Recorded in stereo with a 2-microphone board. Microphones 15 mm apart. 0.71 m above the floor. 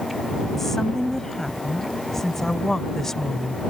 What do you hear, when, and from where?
0.6 s a woman speaking: 20° left (ahead or behind); by 3.6 s 25° left (ahead or behind)